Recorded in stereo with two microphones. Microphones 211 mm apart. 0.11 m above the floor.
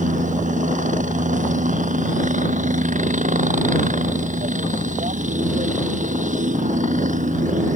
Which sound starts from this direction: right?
A helicopter, at 0.0 s.